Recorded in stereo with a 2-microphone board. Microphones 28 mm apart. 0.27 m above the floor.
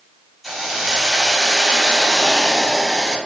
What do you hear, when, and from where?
0.4 s a hiss: 5° left (ahead or behind), 1.3 m